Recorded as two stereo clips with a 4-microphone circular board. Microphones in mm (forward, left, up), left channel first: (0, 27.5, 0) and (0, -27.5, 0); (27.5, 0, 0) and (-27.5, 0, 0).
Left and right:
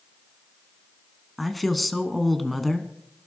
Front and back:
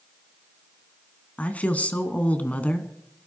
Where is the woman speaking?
5° left, 1.2 m.